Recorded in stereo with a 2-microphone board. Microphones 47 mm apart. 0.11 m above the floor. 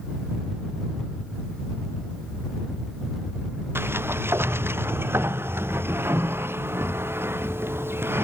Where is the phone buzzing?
I don't hear a phone buzzing.